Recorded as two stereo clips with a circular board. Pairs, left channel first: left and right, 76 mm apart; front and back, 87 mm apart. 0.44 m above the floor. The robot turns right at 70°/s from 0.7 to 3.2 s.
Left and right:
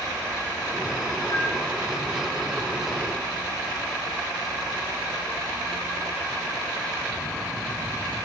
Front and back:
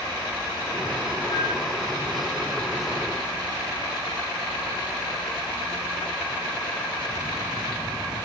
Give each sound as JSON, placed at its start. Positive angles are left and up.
{"t": 1.3, "sound": "a flute", "azimuth_deg": 40, "distance_m": 5.0}